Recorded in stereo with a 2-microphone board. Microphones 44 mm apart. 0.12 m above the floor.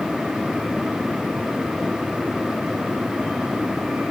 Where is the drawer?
I don't hear a drawer.